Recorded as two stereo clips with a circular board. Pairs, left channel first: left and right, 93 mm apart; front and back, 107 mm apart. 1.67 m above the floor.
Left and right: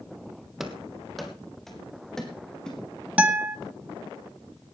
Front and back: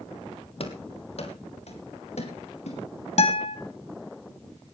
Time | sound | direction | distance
0.6 | running footsteps | 5° right | 3 m
3.2 | a guitar | 15° right | 2 m